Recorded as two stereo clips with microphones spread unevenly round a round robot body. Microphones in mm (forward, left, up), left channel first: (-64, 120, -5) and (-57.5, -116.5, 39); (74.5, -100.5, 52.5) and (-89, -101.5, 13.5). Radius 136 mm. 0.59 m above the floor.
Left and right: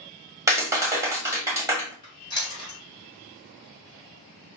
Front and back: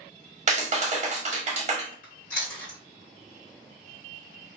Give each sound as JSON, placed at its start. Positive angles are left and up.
{"t": 0.5, "sound": "a clap", "azimuth_deg": -170, "distance_m": 1.2}
{"t": 2.0, "sound": "chewing", "azimuth_deg": 35, "distance_m": 1.4}